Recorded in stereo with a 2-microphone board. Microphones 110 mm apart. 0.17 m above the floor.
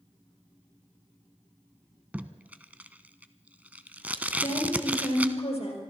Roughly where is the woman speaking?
Left.